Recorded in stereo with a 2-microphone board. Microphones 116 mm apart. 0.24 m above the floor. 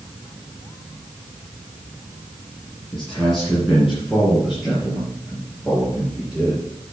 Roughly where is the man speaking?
Centre.